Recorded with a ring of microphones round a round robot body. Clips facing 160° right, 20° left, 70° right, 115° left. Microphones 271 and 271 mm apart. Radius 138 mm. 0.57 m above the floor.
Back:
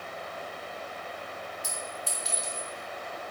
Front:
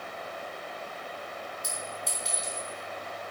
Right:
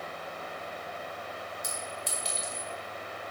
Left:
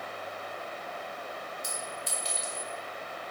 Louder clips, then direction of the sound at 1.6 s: Even, even; 70° right.